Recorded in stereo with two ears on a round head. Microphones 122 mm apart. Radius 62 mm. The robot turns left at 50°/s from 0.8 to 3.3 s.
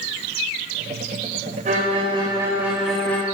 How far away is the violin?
About 3.5 m.